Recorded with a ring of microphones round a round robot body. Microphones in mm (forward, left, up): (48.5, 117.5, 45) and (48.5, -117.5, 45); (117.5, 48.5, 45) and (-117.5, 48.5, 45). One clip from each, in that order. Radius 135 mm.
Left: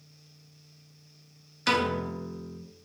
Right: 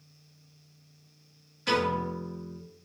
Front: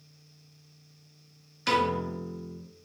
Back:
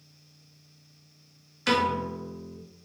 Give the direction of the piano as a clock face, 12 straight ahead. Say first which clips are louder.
Left 1 dB, back 1 dB; 9 o'clock.